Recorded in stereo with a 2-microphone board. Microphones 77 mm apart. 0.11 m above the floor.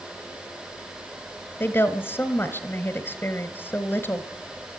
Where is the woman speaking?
30° left (ahead or behind), 1.4 m.